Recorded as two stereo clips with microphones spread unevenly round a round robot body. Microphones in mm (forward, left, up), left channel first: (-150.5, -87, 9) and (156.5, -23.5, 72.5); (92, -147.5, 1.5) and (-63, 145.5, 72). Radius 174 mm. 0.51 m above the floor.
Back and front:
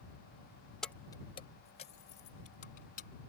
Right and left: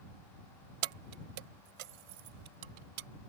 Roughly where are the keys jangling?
Left.